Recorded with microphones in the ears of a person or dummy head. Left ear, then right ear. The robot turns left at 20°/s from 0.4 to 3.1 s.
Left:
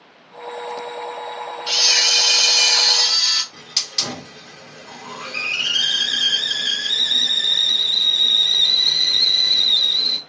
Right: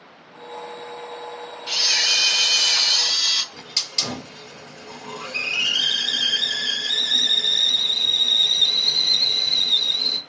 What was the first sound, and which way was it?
A camera shutter, 45° left (ahead or behind).